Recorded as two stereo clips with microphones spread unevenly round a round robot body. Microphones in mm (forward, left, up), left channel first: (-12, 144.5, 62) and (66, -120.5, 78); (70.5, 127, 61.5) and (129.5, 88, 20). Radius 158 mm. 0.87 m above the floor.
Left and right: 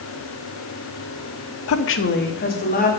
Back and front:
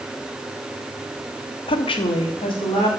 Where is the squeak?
No squeak in this recording.